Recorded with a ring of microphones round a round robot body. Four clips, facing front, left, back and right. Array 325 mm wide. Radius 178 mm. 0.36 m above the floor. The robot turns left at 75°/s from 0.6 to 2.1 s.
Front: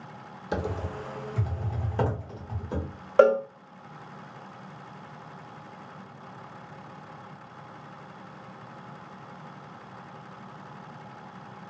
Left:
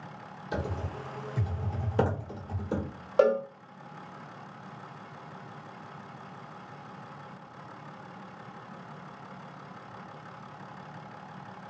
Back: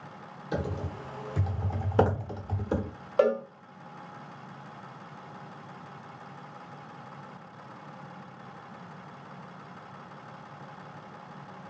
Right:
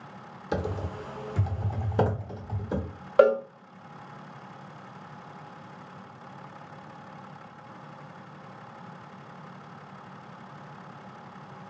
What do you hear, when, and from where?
0.5 s typing on a keyboard: 60° right, 1.1 m; by 2.9 s 175° right, 1.1 m
3.2 s a cowbell: 40° right, 0.6 m